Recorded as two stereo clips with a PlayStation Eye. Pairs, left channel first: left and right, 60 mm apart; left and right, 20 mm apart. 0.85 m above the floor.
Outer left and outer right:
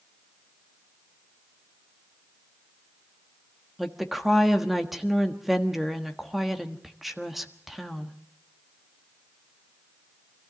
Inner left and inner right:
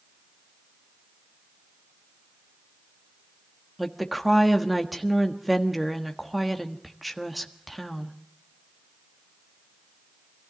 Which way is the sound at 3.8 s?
5° right (ahead or behind).